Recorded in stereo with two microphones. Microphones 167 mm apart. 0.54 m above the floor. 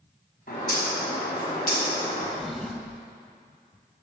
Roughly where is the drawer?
Centre.